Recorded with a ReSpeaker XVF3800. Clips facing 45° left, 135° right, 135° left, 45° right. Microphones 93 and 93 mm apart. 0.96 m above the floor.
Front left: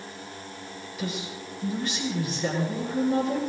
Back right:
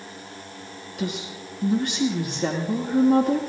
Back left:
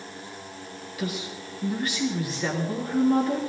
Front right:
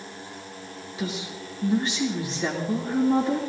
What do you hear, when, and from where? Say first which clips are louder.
1.0 s a woman speaking: back right 3 dB, even; 110° right, 2.5 m